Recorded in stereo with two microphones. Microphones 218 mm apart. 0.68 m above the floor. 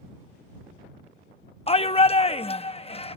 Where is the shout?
30° left (ahead or behind).